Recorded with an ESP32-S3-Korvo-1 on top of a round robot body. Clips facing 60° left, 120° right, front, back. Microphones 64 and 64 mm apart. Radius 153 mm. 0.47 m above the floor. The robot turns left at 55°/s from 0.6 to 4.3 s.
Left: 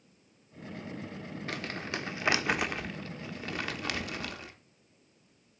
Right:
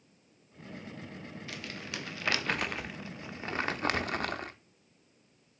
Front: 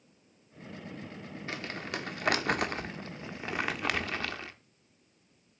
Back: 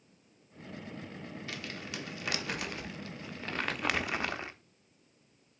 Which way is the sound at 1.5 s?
40° left.